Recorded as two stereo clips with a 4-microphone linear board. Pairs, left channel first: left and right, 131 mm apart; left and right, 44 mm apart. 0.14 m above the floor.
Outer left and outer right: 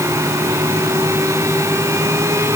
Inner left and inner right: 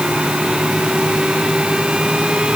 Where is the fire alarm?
I don't hear a fire alarm.